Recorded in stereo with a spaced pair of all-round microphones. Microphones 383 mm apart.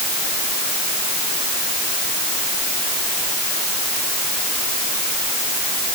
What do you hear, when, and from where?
Only background noise.